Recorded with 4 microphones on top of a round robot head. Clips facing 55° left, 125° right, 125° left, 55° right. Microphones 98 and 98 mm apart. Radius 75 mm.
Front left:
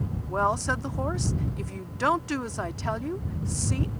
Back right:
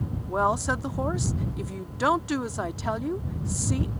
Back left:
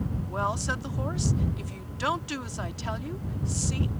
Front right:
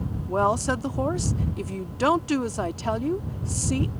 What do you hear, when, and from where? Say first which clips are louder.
0.3 s a woman speaking: back right 1 dB, front right 9 dB; 50° right